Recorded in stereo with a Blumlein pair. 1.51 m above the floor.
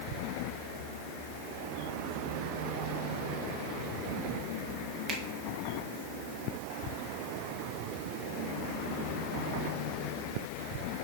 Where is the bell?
I don't hear a bell.